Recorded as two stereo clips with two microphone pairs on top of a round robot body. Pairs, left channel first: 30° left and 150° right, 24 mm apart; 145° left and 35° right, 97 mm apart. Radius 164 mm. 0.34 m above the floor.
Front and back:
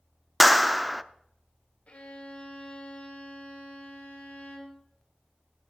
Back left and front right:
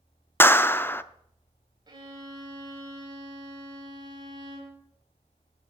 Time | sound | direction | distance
0.4 | a clap | 140° left | 0.7 m
1.9 | a violin | 10° left | 3.5 m